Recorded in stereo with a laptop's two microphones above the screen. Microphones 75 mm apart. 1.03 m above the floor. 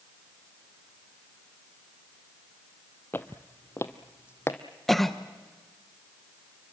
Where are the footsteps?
25° left (ahead or behind), 1.1 m; by 4.6 s 30° left (ahead or behind), 1.8 m.